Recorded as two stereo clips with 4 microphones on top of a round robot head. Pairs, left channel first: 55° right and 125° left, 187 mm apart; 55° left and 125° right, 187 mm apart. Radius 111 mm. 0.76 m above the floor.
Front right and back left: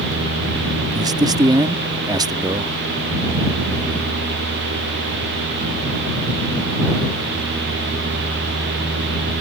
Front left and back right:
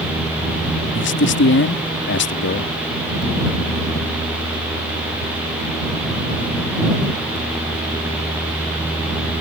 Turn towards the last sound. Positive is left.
turn(degrees=55)